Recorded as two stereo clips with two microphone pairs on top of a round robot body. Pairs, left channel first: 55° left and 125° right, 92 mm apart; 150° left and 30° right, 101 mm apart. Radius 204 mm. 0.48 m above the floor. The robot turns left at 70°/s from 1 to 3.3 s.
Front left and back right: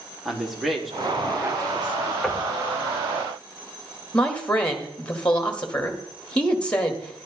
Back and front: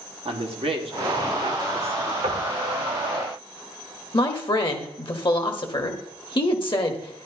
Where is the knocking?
25° right, 2 m; by 2.5 s 40° right, 2 m.